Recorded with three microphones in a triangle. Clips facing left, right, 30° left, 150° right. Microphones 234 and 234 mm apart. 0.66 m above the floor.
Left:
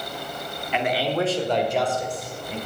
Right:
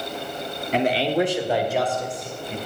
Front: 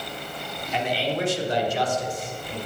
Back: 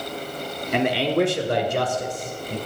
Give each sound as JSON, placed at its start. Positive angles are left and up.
{"t": 0.7, "sound": "a man speaking", "azimuth_deg": -135, "distance_m": 1.1}